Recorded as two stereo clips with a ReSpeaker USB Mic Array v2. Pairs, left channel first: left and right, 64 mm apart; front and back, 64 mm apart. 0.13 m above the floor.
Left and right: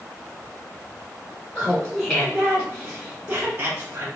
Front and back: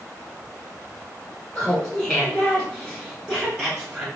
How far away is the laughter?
About 1.7 m.